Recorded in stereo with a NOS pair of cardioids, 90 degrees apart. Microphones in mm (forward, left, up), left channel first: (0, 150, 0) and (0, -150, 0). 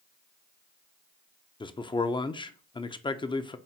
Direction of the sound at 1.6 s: 15° left.